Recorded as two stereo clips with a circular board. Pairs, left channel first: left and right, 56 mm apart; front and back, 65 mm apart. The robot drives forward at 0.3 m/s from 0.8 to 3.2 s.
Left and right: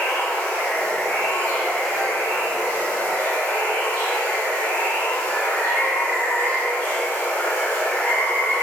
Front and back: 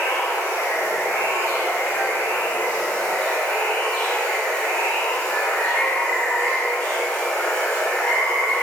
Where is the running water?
30° left, 1.4 m; by 8.6 s 65° left, 1.1 m.